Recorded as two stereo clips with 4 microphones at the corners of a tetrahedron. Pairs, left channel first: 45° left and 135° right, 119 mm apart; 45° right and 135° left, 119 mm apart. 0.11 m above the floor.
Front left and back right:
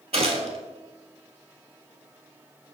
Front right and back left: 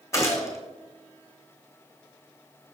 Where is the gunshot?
110° right, 1.3 m.